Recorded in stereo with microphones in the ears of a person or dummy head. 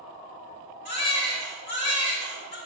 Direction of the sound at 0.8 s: 60° left (ahead or behind).